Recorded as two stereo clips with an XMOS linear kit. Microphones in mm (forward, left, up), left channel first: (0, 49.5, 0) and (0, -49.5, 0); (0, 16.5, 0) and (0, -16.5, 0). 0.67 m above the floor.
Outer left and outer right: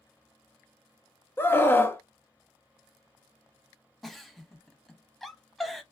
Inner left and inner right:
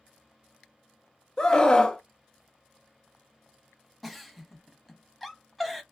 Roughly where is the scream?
Left.